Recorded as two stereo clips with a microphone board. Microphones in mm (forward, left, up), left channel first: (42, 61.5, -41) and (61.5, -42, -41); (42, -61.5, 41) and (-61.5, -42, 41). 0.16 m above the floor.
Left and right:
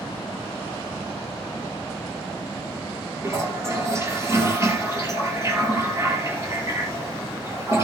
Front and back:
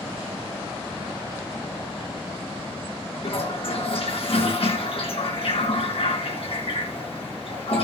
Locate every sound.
3.2 s a toilet flushing: 20° right, 3 m